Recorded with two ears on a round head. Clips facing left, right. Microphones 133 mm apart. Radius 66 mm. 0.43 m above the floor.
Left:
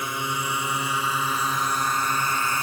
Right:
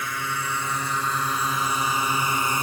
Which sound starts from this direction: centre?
A drone, at 0.0 s.